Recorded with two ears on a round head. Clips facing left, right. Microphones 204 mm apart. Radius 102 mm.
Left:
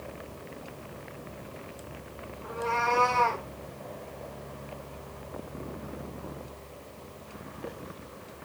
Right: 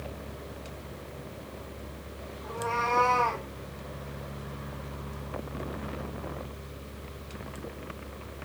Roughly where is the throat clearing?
No throat clearing in this recording.